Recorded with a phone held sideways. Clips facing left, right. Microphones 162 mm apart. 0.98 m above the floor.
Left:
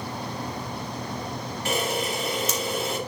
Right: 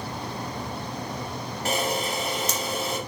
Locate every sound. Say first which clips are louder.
1.6 s a camera shutter: even; 35° right (ahead or behind), 3 m